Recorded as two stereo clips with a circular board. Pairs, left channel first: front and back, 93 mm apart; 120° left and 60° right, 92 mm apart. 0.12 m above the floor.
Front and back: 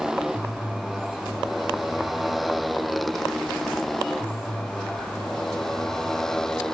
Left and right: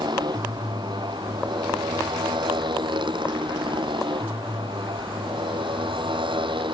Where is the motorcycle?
95° right; by 6.8 s 85° right.